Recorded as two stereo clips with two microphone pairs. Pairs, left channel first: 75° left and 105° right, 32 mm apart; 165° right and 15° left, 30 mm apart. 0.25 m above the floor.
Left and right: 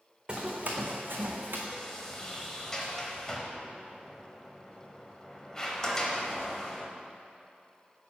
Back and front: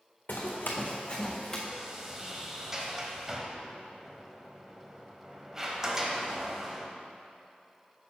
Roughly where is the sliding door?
Ahead left.